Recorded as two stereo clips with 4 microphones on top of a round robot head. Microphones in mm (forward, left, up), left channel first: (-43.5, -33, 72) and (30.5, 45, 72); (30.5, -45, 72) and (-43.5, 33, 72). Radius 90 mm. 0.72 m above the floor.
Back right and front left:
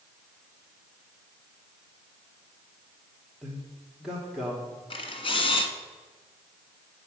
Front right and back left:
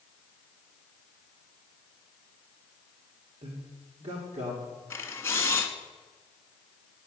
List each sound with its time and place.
3.4 s a man speaking: 135° left, 1.5 m
4.9 s a camera shutter: 115° right, 1.4 m